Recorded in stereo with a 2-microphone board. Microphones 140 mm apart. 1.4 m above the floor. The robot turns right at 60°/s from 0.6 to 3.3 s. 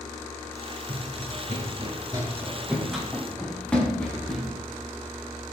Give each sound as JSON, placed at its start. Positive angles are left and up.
{"t": 0.9, "sound": "running footsteps", "side_deg": -65, "distance_m": 3.5}